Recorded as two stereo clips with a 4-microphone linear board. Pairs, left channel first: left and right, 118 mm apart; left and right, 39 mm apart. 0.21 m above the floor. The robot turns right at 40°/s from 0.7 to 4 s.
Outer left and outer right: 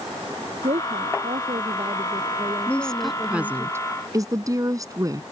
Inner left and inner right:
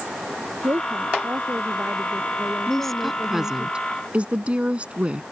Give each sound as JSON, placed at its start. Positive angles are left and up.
{"t": 0.6, "sound": "a woman speaking", "azimuth_deg": -105}
{"t": 2.7, "sound": "a woman speaking", "azimuth_deg": 165}